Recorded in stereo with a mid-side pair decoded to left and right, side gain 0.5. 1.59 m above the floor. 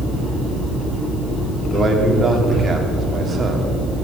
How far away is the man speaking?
About 3 m.